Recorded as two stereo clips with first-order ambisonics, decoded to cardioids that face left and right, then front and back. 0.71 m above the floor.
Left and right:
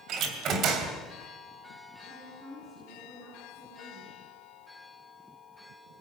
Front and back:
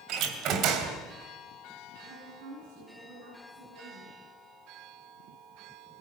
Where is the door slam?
140° right, 2.5 m.